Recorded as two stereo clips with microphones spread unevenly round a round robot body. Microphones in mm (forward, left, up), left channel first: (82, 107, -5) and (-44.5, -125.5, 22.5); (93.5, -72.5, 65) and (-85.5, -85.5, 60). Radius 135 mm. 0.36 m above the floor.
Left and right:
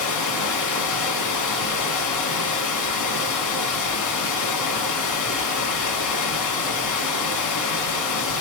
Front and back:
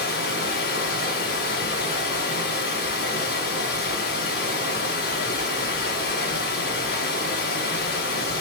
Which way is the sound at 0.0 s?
45° left.